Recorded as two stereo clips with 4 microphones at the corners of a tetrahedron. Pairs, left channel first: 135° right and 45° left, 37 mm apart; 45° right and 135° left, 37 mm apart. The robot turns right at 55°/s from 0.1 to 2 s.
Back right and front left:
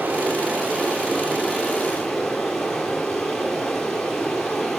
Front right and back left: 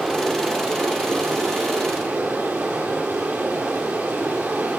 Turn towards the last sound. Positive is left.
turn(degrees=145)